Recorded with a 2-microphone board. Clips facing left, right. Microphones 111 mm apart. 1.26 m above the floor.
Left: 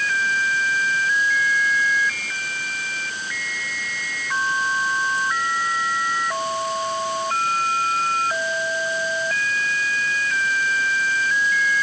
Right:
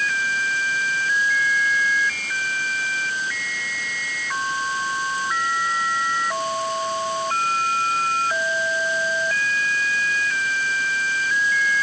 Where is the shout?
I don't hear a shout.